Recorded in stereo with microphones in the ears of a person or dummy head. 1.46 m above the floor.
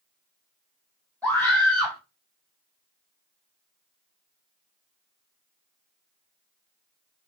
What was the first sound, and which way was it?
A scream, 10° left (ahead or behind).